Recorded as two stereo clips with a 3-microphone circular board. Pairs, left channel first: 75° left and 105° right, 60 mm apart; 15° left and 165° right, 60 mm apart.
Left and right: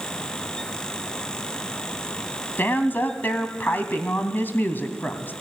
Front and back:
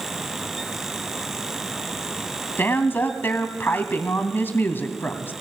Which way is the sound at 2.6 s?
40° left.